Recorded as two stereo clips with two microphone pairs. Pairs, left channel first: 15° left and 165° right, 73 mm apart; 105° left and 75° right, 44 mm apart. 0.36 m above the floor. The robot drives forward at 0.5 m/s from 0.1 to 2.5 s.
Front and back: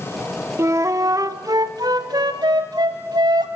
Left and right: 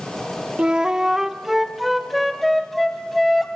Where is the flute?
130° right, 0.7 m; by 3.5 s 165° right, 1.4 m.